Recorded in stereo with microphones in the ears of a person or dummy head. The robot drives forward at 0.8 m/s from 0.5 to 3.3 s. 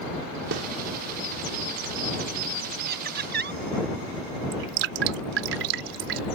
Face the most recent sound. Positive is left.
turn(degrees=-70)  # may be behind; listen again after turning